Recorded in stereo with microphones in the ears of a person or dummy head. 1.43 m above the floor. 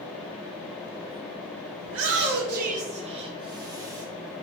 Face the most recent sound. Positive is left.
turn(degrees=-15)  # may be behind; listen again after turning